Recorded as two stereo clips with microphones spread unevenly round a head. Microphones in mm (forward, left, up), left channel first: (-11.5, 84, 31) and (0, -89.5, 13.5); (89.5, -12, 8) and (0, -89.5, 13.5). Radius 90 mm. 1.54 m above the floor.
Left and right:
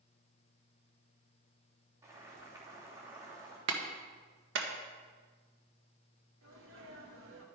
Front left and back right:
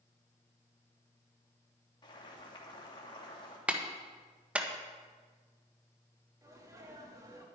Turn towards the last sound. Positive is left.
turn(degrees=-80)